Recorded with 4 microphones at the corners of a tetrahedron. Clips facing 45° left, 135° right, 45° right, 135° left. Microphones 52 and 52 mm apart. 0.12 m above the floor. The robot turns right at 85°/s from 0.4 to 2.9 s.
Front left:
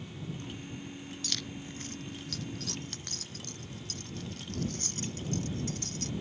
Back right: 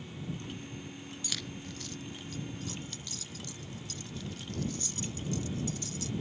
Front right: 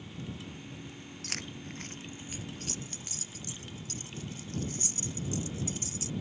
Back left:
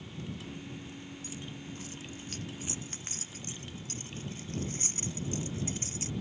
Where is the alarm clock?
No alarm clock in this recording.